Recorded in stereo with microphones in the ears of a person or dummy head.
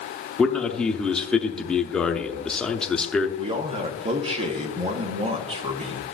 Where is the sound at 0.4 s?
5° left (ahead or behind), 0.5 m.